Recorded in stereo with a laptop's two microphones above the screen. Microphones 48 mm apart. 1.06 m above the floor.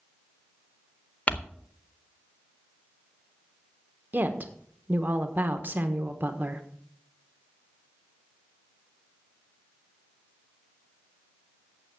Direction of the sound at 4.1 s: 40° right (ahead or behind).